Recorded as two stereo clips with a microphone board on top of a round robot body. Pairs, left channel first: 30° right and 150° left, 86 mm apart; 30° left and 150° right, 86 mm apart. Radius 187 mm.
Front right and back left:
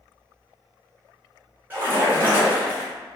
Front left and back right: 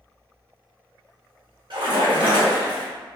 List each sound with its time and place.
1.7 s a splash: 145° right, 1.6 m